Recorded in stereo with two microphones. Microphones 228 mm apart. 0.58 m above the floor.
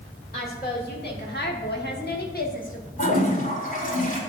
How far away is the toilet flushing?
About 1.9 m.